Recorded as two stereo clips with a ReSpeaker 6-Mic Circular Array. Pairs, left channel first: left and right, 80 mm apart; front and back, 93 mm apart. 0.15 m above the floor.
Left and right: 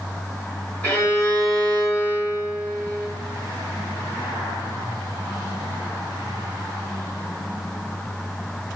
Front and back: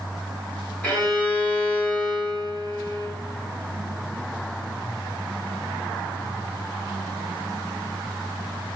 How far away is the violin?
About 1.9 m.